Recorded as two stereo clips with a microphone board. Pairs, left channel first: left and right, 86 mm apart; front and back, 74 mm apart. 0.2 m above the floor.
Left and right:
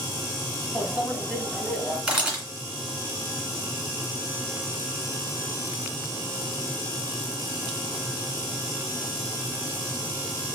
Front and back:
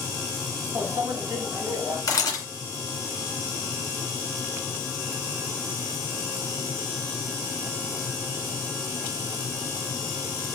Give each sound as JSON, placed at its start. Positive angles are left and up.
{"t": 0.8, "sound": "a microwave", "azimuth_deg": -175, "distance_m": 1.2}
{"t": 2.1, "sound": "a camera shutter", "azimuth_deg": -20, "distance_m": 2.5}